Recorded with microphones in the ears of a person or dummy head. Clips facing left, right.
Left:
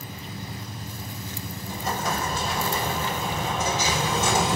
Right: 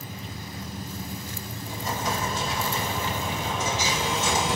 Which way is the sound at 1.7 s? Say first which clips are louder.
Left 1 dB; 50° left (ahead or behind).